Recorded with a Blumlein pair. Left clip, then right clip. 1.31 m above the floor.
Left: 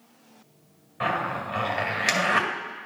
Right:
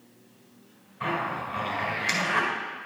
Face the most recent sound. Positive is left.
turn(degrees=45)